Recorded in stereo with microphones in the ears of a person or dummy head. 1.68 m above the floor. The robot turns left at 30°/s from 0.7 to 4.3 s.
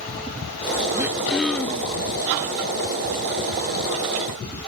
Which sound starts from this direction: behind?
Throat clearing, at 0.9 s.